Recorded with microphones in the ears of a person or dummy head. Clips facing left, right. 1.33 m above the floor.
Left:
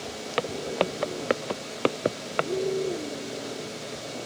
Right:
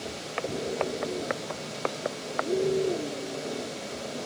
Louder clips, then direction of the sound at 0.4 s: Left 3 dB; 55° left (ahead or behind).